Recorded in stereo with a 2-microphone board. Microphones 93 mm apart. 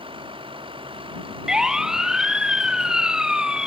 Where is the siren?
5° right (ahead or behind); by 3.7 s 10° right (ahead or behind).